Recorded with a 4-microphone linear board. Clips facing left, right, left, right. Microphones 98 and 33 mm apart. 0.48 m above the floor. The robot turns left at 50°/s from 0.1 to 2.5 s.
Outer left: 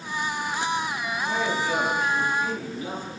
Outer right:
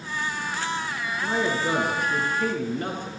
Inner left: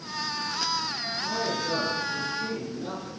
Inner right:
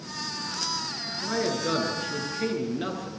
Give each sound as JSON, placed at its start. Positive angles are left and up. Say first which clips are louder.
{"t": 1.2, "sound": "a man speaking", "louder": "outer right 2 dB, inner right 3 dB", "azimuth_deg": -55, "distance_m": 7.0}